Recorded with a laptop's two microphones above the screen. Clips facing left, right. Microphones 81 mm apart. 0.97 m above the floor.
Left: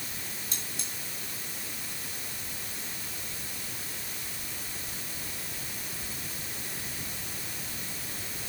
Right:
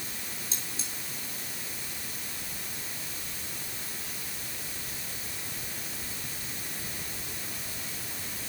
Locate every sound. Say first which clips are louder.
0.5 s cutlery clinking: even; 50° left (ahead or behind), 9 m